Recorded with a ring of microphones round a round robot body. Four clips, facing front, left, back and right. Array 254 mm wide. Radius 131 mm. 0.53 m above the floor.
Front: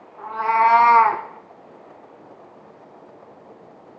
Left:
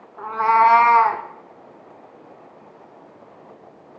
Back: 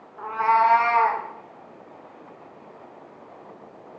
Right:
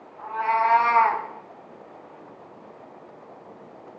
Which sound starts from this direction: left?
A cat meowing, at 0.2 s.